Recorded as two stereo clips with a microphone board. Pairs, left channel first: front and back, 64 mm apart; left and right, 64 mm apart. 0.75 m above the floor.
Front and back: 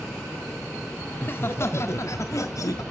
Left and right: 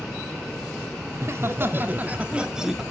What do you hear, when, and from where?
1.1 s laughter: 50° right, 1.7 m; by 2.8 s 5° right, 1.4 m